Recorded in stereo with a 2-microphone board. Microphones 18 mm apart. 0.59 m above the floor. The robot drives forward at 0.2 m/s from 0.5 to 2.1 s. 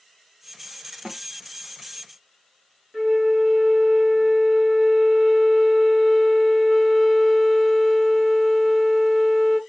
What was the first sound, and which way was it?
A snare drum, 45° right (ahead or behind).